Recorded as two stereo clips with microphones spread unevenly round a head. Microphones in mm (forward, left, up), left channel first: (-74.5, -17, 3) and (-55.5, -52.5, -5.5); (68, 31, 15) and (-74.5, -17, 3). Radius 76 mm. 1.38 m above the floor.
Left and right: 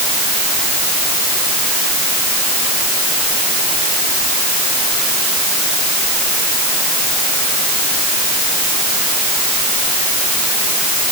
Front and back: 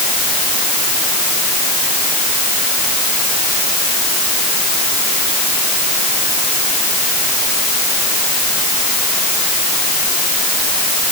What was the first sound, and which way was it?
Only background noise.